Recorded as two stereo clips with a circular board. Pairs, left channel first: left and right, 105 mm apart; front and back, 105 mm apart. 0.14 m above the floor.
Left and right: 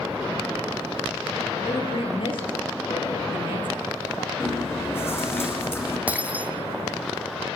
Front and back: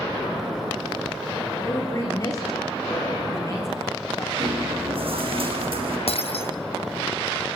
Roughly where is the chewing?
Behind left.